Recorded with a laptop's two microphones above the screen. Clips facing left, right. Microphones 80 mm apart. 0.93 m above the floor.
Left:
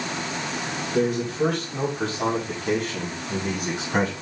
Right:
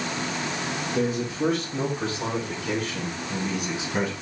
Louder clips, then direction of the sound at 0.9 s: Left 4 dB; 65° left (ahead or behind).